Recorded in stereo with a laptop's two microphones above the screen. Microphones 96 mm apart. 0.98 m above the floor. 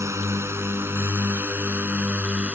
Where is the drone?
30° right (ahead or behind); by 2.5 s 15° right (ahead or behind).